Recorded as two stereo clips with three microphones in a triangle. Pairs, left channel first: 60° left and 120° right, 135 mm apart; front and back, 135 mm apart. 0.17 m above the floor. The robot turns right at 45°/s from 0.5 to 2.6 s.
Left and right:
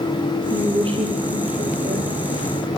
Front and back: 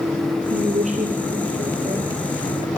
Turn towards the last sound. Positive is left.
turn(degrees=-85)